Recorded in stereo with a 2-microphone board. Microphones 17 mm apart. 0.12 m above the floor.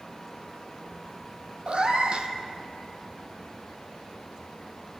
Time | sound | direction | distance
1.7 | a cat meowing | 60° right (ahead or behind) | 1.2 m